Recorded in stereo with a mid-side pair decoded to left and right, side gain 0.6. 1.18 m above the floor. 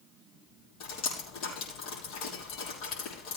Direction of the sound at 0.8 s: 70° left.